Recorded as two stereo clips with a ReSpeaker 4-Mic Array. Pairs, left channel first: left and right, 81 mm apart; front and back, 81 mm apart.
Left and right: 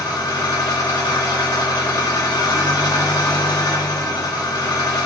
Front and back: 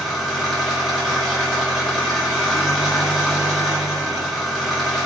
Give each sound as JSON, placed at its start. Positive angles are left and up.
{"t": 0.0, "sound": "an engine running", "azimuth_deg": 95, "distance_m": 1.2}